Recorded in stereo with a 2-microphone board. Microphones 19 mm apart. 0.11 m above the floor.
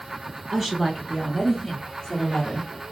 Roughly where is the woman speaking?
Centre.